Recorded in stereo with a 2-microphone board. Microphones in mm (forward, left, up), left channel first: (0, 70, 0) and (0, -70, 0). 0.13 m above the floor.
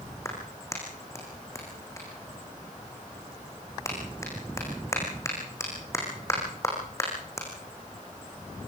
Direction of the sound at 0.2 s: 20° left (ahead or behind).